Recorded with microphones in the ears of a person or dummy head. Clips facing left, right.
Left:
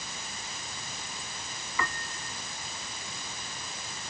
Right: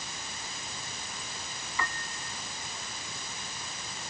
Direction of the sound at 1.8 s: 60° left (ahead or behind).